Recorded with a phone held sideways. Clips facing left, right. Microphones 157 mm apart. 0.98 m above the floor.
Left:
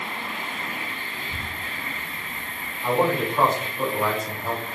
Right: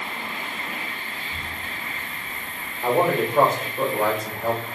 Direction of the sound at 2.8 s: 60° right (ahead or behind).